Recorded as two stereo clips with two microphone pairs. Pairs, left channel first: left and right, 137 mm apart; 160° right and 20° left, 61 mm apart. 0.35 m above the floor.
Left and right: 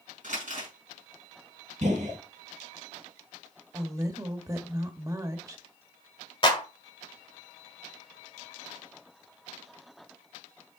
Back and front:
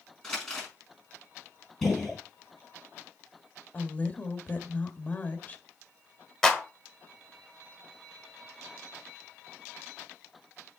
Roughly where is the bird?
I don't hear a bird.